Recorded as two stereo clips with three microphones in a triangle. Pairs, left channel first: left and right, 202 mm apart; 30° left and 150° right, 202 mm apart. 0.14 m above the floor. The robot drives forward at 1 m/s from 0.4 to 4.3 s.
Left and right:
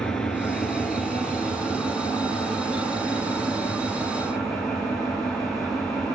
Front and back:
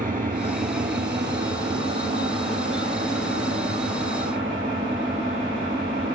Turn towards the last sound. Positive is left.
turn(degrees=180)